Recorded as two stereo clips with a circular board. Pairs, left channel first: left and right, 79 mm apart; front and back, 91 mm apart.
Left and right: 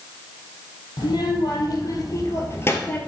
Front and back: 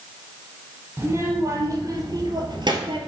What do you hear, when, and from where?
1.0 s a child speaking: 120° left, 3 m; by 3.0 s 155° left, 1.9 m